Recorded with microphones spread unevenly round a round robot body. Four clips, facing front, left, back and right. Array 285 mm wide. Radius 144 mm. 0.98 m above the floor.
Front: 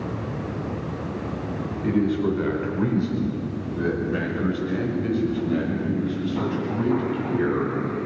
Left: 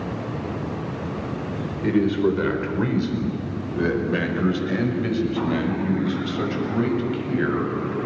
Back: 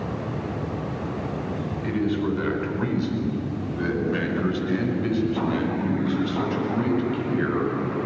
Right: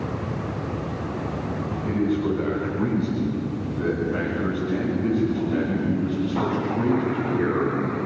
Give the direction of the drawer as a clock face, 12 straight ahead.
I don't hear a drawer.